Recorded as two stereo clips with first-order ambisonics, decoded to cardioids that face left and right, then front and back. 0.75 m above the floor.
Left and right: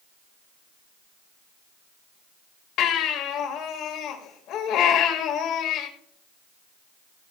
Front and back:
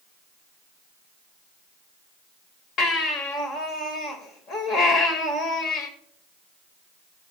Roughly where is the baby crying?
Ahead left.